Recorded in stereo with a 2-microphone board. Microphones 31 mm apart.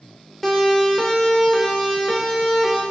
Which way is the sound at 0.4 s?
10° left (ahead or behind).